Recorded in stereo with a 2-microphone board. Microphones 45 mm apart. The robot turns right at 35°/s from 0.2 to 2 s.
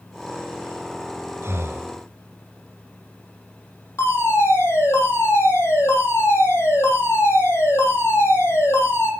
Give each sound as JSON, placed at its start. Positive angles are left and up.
{"t": 1.4, "sound": "breathing", "side_deg": -65, "distance_m": 2.5}
{"t": 4.0, "sound": "a fire alarm", "side_deg": 75, "distance_m": 10.0}